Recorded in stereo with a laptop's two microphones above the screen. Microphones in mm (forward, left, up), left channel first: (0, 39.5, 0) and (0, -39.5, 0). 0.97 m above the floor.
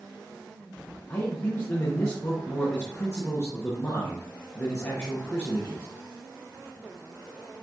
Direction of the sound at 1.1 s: 35° left (ahead or behind).